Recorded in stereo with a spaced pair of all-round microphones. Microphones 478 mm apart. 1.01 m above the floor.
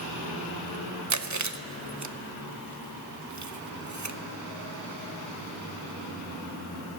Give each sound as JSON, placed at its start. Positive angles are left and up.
{"t": 1.1, "sound": "chewing", "side_deg": -35, "distance_m": 0.7}